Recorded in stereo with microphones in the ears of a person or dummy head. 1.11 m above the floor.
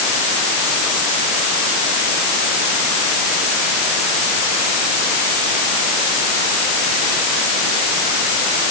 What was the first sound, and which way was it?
Only background noise.